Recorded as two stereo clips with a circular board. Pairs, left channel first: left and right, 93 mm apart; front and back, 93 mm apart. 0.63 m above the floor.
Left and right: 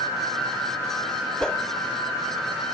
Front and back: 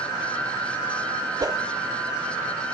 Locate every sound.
1.4 s a whoosh: 170° left, 0.6 m